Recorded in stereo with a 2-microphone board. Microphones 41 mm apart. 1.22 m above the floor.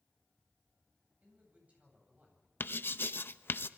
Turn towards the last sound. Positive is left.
turn(degrees=55)  # may be behind; listen again after turning